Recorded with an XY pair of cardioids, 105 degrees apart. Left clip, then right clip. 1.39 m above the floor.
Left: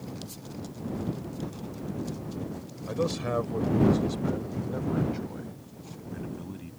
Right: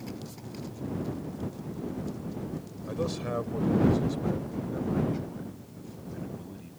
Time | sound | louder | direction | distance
2.9 | a man speaking | left 3 dB | 20° left | ?